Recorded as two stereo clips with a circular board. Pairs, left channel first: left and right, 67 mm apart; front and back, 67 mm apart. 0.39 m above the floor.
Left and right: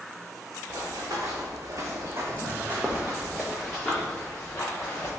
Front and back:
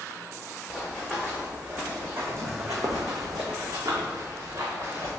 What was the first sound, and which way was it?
Running footsteps, 95° right.